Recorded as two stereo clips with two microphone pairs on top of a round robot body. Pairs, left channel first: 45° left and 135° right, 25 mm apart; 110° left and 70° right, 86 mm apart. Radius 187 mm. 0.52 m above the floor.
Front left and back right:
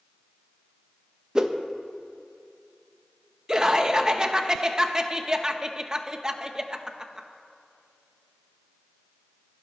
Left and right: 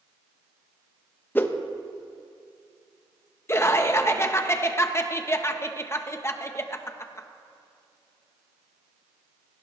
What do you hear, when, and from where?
1.4 s a whoosh: 165° left, 1.1 m
3.5 s laughter: 160° left, 1.3 m